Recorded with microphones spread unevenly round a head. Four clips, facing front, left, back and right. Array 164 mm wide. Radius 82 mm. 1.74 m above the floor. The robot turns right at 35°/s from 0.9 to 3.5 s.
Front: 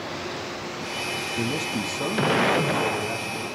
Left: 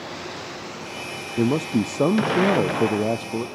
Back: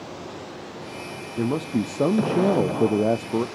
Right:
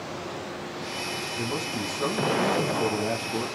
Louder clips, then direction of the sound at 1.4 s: Left 12 dB, back 6 dB; 95° left.